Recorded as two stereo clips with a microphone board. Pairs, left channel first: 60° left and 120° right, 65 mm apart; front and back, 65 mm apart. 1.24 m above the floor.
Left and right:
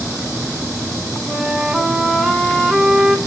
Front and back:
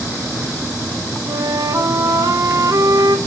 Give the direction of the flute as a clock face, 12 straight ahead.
7 o'clock.